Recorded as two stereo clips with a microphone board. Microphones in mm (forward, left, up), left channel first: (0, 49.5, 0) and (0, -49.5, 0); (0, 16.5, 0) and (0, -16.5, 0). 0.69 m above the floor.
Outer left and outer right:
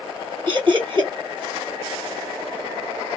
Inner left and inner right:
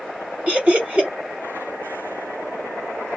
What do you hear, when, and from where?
0.5 s laughter: 50° right (ahead or behind), 1.5 m